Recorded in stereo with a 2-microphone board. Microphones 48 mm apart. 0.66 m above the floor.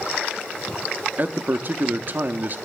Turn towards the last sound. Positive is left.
turn(degrees=-45)  # may be behind; listen again after turning